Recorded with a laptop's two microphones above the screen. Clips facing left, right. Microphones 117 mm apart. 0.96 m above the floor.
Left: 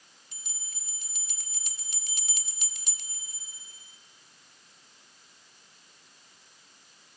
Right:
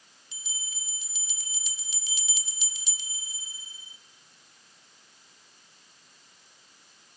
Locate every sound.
0.3 s a bell: 50° left (ahead or behind), 1.8 m